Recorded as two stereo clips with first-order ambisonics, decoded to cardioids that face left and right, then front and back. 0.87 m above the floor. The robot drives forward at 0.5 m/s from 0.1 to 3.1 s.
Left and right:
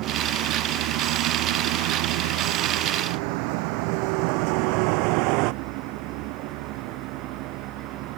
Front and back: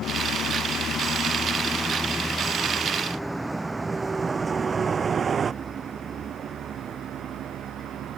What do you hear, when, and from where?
0.0 s a vehicle: 55° right; by 8.2 s 125° right